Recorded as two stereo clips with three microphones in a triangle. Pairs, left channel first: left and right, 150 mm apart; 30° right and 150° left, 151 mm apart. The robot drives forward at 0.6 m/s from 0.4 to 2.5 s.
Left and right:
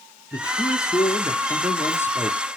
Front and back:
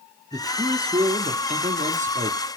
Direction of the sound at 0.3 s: 130° left.